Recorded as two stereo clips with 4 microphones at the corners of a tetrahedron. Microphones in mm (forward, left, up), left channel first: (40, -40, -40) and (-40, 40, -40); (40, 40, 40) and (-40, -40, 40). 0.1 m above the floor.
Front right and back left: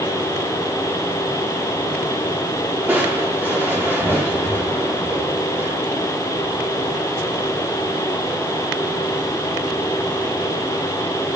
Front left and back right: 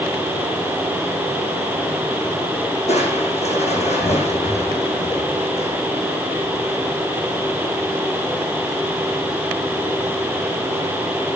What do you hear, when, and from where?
2.9 s crushing: 55° left, 5.5 m